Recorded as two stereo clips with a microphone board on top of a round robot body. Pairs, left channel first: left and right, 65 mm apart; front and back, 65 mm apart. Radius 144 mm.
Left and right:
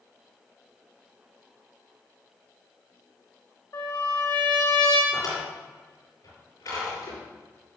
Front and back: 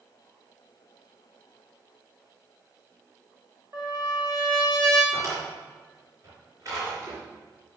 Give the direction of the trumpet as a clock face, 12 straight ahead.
8 o'clock.